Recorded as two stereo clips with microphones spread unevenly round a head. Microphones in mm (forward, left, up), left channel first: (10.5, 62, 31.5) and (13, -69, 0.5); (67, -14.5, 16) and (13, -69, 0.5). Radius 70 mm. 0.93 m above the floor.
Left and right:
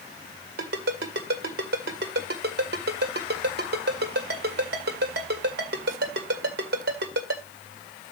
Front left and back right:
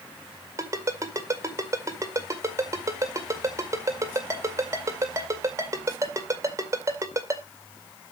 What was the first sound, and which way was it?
A ringtone, 80° right.